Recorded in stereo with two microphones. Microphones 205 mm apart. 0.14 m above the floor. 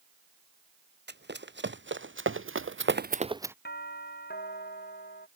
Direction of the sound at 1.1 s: 60° right (ahead or behind).